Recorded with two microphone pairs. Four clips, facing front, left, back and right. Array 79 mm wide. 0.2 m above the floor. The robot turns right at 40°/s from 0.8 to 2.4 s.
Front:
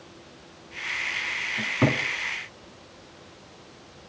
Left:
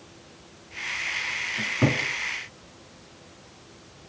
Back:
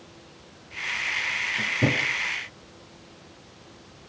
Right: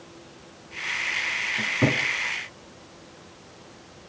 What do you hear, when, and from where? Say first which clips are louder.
1.6 s a cupboard door: even, front 2 dB; 5° right, 1.5 m; by 2.0 s 10° left, 1.5 m